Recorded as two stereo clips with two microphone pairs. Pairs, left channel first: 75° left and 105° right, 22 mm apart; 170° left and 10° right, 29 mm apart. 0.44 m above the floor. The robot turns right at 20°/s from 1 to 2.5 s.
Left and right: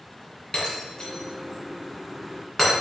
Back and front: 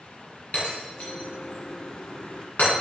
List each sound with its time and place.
0.5 s breaking glass: 130° left, 3 m; by 2.7 s 160° left, 3 m